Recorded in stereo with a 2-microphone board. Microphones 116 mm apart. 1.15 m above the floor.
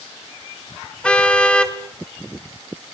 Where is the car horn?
10° left (ahead or behind), 2 m.